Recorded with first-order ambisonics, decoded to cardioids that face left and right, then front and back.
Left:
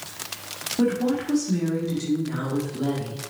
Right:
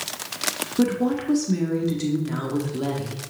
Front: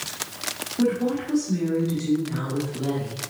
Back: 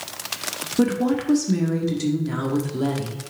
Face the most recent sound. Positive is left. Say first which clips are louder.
# left 1 dB, back 2 dB
turn(degrees=-155)